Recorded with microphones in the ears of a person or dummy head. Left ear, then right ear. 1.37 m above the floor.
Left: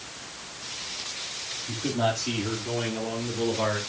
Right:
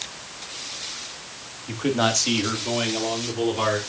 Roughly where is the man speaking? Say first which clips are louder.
Right 5 dB; right.